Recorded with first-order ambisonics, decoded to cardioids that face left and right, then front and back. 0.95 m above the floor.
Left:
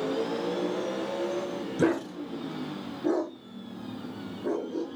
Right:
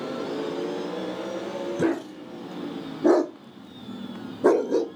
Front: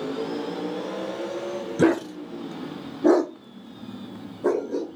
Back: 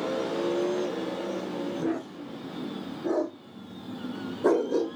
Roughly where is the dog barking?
Ahead.